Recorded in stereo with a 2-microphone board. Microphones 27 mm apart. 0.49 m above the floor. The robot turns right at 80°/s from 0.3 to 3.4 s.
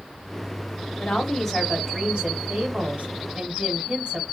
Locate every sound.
1.0 s a woman speaking: 125° left, 1.7 m; by 4.2 s 45° right, 1.7 m